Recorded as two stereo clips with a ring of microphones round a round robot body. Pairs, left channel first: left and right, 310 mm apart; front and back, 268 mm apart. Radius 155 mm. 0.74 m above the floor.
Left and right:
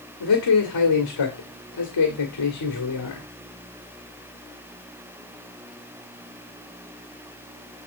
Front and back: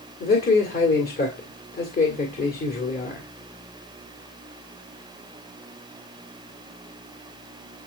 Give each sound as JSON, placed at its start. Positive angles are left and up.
{"t": 0.2, "sound": "a man speaking", "azimuth_deg": 55, "distance_m": 1.8}